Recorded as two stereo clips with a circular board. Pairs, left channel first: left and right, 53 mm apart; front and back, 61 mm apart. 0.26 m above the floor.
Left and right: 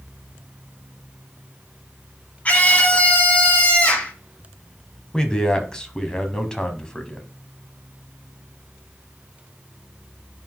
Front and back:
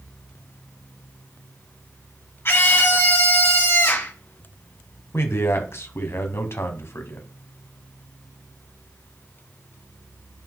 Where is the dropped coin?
No dropped coin in this recording.